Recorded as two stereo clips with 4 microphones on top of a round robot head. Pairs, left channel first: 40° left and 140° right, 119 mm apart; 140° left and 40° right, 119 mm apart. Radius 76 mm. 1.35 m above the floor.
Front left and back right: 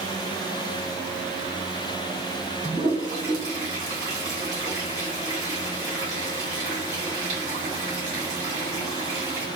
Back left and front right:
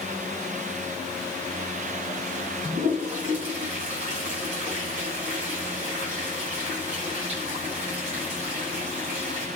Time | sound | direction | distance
2.6 | a toilet flushing | 75° right | 2 m